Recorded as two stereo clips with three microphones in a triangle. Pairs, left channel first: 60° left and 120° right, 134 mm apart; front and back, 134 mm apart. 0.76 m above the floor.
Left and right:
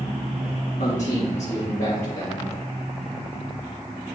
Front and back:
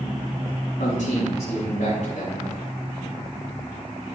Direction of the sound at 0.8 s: 30° left.